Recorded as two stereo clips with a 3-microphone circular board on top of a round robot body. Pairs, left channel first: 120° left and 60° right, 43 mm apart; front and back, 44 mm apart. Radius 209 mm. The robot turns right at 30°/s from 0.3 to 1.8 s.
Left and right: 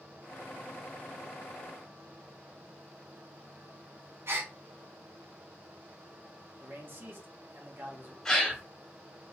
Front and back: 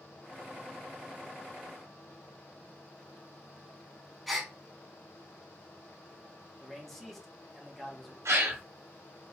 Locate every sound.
4.3 s a gasp: 85° right, 1.2 m
6.6 s a man speaking: 80° right, 2 m
8.2 s a gasp: 165° right, 1.2 m